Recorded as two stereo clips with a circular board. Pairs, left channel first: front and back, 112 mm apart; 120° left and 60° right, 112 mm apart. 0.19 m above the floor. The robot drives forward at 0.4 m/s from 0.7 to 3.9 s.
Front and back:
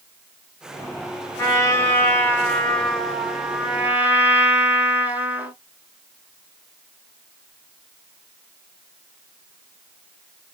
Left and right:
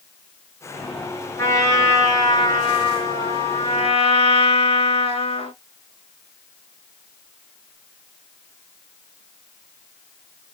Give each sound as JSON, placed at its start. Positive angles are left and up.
{"t": 1.4, "sound": "a trumpet", "azimuth_deg": 60, "distance_m": 1.5}